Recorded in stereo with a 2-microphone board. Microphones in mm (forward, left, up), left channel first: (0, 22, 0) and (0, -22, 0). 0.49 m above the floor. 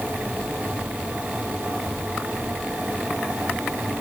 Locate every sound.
Only background noise.